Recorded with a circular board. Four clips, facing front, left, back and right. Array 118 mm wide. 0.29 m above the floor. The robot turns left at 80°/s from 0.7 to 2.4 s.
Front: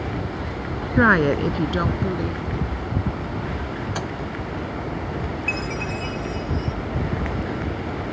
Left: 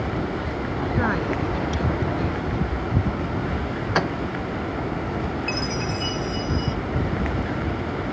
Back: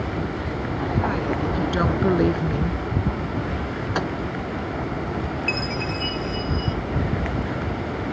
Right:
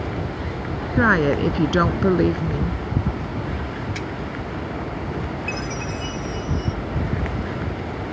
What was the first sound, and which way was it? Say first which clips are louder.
A woman speaking: right 8 dB, front 9 dB; 20° right.